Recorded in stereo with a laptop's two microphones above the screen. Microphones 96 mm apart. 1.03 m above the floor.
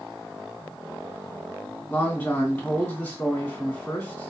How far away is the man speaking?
About 2 m.